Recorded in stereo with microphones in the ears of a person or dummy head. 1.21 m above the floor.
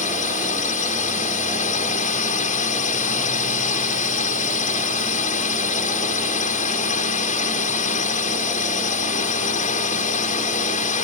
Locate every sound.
0.0 s a drone: 35° left (ahead or behind)